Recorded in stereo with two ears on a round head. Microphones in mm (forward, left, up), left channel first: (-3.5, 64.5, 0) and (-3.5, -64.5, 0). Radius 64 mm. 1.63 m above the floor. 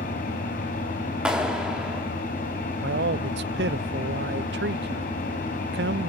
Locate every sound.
0.0 s an engine running: 60° left (ahead or behind), 5.5 m
1.2 s a clap: 5° right (ahead or behind), 3 m
2.8 s a man speaking: 80° right, 0.6 m